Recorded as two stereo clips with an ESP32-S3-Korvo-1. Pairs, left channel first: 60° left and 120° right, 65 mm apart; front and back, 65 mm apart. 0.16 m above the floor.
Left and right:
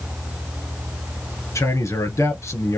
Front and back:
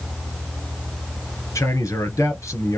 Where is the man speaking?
30° left, 2.5 m.